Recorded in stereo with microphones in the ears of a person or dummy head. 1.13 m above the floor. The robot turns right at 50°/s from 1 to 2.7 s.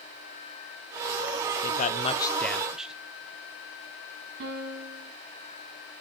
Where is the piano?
65° right (ahead or behind), 2.5 m.